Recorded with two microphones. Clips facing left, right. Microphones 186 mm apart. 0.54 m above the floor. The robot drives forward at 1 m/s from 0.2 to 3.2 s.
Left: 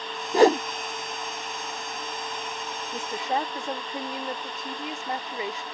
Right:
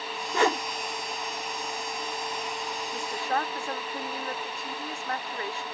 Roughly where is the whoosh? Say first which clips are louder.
Left 8 dB; left.